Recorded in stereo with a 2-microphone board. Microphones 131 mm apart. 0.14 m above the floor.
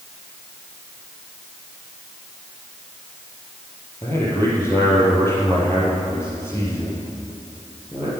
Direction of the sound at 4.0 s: 20° left (ahead or behind).